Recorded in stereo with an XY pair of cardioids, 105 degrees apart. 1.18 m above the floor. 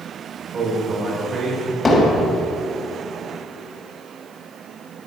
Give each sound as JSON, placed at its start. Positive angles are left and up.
{"t": 0.5, "sound": "a man speaking", "azimuth_deg": -40, "distance_m": 4.5}
{"t": 1.9, "sound": "hammering", "azimuth_deg": 30, "distance_m": 3.5}